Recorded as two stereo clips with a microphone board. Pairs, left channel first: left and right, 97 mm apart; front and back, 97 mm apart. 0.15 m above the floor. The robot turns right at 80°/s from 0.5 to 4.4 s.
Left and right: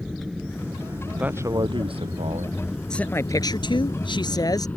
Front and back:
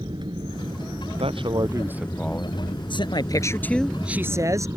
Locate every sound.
0.0 s an aircraft: straight behind; by 4.8 s 150° left
1.2 s a man speaking: 170° right; by 2.7 s 50° right
2.9 s a man speaking: 10° left; by 4.7 s 130° left